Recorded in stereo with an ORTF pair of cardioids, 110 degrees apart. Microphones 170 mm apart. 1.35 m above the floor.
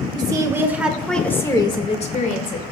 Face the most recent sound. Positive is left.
turn(degrees=55)